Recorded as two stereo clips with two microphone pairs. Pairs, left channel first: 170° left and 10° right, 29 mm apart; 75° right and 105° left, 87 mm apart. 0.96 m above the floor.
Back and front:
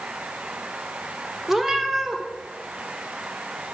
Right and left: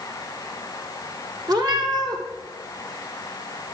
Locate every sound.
1.5 s a cat meowing: 70° left, 1.2 m